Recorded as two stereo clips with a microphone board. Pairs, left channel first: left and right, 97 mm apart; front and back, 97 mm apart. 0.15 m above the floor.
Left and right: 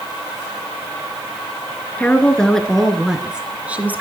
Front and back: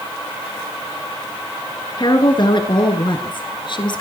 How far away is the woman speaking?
About 2.5 m.